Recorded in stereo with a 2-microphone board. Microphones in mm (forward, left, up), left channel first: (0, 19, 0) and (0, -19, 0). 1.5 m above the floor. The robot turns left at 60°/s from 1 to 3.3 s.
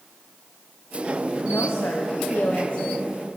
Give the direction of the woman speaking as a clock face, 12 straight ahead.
8 o'clock.